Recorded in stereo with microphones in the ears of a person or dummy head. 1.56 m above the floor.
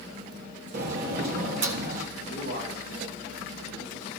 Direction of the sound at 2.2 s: 65° right (ahead or behind).